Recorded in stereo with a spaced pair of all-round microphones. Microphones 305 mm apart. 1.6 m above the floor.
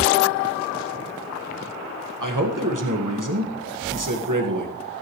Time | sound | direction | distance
2.2 | a man speaking | 85° right | 1.8 m